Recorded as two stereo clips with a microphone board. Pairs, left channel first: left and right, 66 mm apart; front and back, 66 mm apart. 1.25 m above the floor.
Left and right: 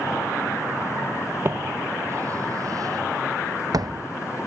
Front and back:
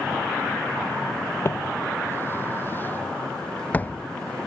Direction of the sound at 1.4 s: 40° right.